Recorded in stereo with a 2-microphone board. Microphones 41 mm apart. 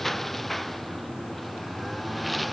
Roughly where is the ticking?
I don't hear ticking.